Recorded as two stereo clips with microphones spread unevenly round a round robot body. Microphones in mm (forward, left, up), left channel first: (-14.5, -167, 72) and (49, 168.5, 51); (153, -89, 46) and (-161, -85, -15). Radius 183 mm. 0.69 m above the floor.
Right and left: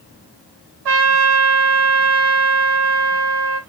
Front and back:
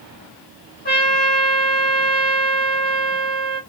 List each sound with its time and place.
0.8 s a trumpet: 70° left, 3.5 m